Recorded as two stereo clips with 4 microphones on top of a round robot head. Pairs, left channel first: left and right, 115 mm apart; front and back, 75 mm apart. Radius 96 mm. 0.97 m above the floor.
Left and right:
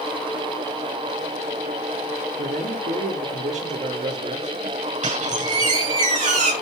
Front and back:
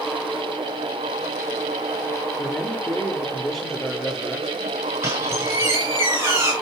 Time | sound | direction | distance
2.4 | a man speaking | 85° right | 3.5 m
5.0 | a squeak | 110° right | 7 m